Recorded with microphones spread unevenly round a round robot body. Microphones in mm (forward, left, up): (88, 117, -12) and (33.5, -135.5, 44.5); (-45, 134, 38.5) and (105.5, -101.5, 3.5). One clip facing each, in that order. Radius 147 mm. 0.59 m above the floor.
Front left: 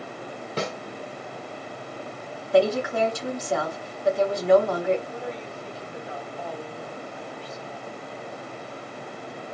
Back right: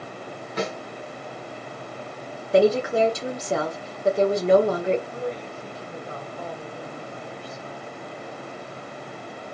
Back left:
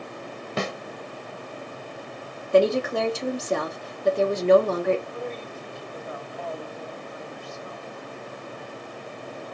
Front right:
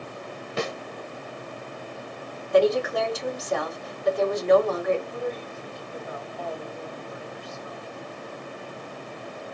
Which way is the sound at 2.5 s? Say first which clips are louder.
Back right 3 dB, back left 1 dB; 175° right.